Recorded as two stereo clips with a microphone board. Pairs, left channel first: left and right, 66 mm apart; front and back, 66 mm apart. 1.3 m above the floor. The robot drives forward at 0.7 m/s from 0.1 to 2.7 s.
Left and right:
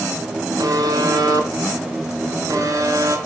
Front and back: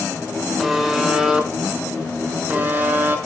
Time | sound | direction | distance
0.6 | a buzzer | 90° right | 3 m